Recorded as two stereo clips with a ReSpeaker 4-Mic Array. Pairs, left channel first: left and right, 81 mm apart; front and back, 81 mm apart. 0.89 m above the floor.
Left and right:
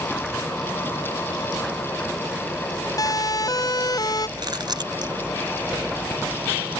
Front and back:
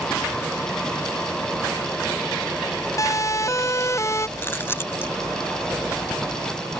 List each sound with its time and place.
3.0 s a siren: 50° left; by 4.3 s 55° left
4.4 s chewing: 60° right